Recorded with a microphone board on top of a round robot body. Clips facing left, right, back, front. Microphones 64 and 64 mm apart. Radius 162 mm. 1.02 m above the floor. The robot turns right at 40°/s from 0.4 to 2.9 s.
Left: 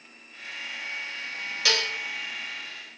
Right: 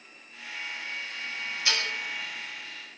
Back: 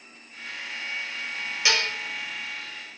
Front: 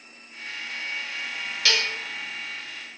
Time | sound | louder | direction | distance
1.6 | dishes clattering | left 3 dB, even | 105° left | 3.5 m